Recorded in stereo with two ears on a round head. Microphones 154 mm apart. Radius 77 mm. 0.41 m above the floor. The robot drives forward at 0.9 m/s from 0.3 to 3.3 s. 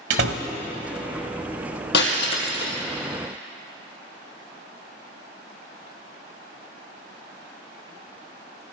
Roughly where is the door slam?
Right.